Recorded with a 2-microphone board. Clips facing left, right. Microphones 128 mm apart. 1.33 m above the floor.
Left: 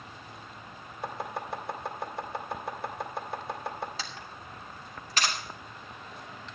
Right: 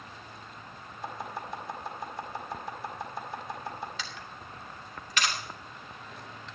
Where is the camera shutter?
35° left (ahead or behind), 2.5 m.